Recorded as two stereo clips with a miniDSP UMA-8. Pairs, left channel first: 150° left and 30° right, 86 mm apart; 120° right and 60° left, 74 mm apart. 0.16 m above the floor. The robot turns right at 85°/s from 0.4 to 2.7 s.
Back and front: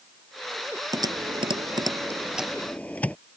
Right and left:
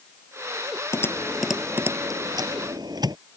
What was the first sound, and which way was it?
Typing on a keyboard, 75° right.